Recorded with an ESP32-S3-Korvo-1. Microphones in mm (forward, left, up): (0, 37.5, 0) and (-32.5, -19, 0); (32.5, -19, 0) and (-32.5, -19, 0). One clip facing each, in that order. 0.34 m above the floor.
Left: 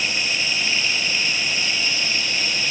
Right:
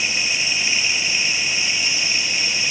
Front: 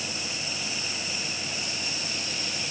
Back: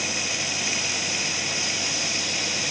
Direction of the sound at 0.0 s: 165° left.